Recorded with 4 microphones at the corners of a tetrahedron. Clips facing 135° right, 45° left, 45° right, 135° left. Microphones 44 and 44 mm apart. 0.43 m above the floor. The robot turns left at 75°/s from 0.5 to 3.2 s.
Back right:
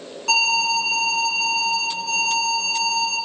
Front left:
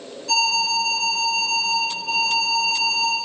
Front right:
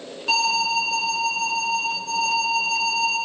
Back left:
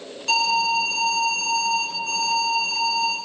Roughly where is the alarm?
Behind right.